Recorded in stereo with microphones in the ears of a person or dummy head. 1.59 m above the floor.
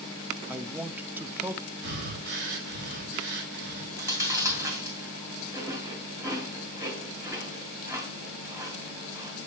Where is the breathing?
65° right (ahead or behind), 2.5 m.